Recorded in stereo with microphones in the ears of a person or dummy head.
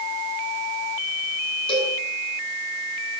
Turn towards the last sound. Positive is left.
turn(degrees=25)  # may be behind; listen again after turning